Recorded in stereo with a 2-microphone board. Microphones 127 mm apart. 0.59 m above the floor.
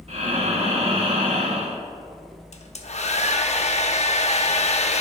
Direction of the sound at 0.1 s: 55° right (ahead or behind).